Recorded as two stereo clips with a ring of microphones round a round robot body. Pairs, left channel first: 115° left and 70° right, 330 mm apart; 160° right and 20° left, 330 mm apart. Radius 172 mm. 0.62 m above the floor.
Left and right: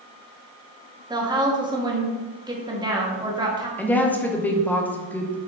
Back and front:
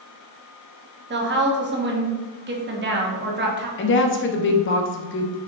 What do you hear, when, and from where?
1.1 s a woman speaking: straight ahead, 1.3 m
3.8 s a woman speaking: 165° right, 0.9 m